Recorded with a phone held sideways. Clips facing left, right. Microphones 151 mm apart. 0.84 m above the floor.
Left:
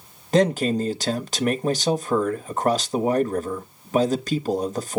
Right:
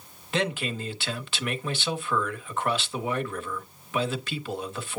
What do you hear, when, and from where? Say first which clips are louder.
0.3 s a man speaking: left 10 dB; 40° left (ahead or behind), 0.9 m